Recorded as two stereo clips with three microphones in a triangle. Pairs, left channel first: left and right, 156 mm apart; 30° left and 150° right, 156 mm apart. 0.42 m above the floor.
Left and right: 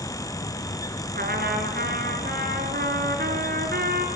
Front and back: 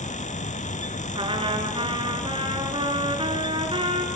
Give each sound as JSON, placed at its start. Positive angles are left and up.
{"t": 1.1, "sound": "a trumpet", "azimuth_deg": -95, "distance_m": 2.5}